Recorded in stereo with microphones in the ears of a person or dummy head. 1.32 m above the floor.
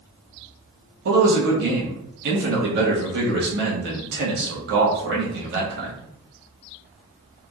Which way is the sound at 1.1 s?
65° right (ahead or behind).